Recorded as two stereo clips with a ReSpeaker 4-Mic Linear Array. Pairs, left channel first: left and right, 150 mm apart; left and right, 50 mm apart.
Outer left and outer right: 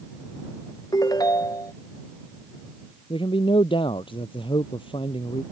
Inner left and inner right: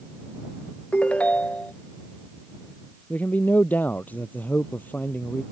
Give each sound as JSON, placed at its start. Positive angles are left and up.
{"t": 0.9, "sound": "a ringtone", "side_deg": 25}
{"t": 3.1, "sound": "a man speaking", "side_deg": 35}